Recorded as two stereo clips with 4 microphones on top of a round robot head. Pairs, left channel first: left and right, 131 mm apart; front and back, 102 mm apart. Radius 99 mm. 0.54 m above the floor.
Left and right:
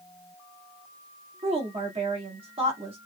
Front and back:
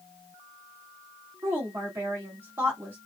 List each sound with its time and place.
1.4 s a woman speaking: 115° right, 1.7 m